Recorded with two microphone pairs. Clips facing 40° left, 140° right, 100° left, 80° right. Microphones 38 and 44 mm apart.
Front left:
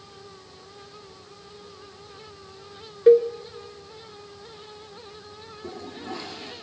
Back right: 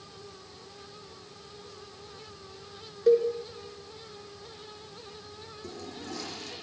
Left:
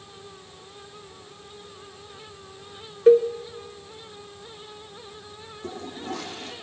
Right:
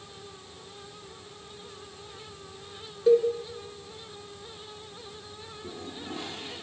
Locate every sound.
3.1 s a cowbell: 75° left, 1.5 m
5.6 s a toilet flushing: 100° left, 7.5 m